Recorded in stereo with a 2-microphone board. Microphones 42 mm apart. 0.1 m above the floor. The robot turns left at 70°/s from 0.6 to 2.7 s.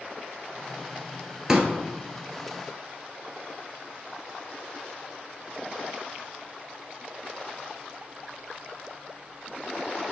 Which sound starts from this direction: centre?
A pop, at 1.5 s.